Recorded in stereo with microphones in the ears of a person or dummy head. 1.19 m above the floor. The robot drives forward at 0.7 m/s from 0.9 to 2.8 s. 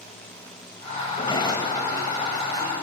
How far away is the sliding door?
About 3.5 m.